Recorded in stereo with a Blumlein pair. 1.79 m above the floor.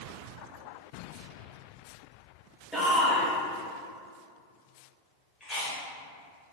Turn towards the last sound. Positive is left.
turn(degrees=15)